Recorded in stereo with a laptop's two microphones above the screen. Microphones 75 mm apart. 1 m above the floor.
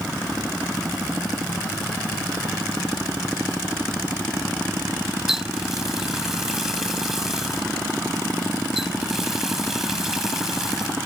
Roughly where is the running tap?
Centre.